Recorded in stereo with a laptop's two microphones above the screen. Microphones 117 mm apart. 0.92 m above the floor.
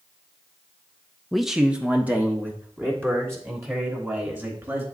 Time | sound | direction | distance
1.3 | a man speaking | centre (ahead or behind) | 0.5 m